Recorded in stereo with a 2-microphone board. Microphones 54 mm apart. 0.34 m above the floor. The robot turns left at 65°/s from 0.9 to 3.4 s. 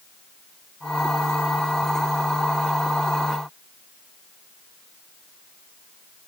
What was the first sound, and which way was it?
Only background noise.